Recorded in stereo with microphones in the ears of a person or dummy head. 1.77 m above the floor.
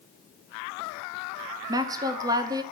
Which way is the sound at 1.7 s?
20° right (ahead or behind).